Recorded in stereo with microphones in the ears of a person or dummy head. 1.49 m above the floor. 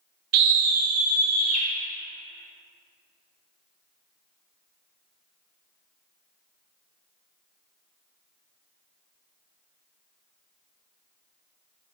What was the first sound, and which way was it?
A scream, 55° right (ahead or behind).